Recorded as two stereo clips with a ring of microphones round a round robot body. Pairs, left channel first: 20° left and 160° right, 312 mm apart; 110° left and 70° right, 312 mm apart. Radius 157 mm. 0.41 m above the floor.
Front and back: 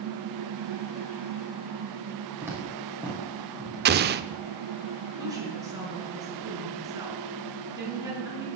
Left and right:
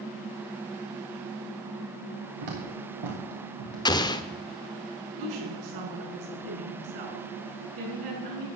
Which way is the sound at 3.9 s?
Straight behind.